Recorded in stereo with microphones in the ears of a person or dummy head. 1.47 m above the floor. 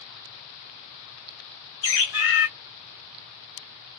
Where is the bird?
60° left (ahead or behind), 0.9 m.